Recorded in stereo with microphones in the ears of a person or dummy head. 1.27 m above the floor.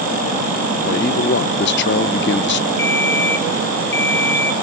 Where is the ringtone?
10° left (ahead or behind), 4 m.